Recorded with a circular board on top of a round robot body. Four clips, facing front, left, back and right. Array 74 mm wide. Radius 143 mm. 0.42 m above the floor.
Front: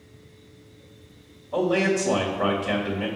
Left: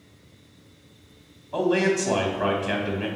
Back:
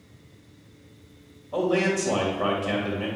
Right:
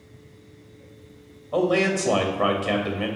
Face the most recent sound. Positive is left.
turn(degrees=-85)